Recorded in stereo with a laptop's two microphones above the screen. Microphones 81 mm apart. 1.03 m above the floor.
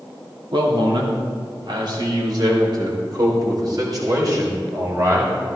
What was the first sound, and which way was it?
A man speaking, 65° right (ahead or behind).